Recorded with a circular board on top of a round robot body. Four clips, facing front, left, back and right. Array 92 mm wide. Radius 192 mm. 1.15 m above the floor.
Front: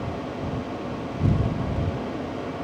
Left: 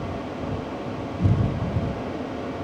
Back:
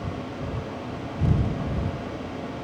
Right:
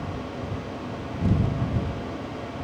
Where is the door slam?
I don't hear a door slam.